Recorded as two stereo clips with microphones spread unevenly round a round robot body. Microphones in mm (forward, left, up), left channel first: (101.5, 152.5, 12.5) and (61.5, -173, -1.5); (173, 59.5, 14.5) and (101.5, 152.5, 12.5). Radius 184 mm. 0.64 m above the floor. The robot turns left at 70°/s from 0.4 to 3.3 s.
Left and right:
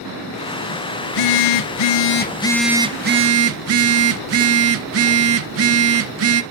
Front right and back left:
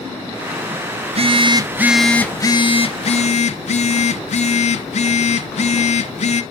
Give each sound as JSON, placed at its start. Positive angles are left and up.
{"t": 1.0, "sound": "a phone buzzing", "azimuth_deg": 105, "distance_m": 1.1}